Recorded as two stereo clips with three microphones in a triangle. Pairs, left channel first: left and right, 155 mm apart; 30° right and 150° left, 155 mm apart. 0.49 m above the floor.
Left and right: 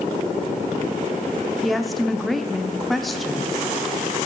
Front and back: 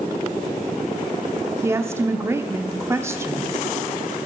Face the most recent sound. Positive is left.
turn(degrees=180)